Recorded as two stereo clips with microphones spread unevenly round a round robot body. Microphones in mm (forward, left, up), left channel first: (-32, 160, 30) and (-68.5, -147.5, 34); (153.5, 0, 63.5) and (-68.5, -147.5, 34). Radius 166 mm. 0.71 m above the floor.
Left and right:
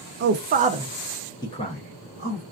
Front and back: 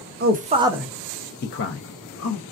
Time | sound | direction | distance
0.2 | a man speaking | 135° right | 0.6 m